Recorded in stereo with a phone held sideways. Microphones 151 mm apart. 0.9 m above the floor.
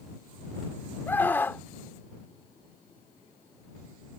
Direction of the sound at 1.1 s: 15° left (ahead or behind).